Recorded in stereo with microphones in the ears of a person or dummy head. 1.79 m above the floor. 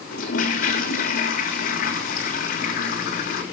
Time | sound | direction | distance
0.1 | a toilet flushing | 55° left (ahead or behind) | 1.7 m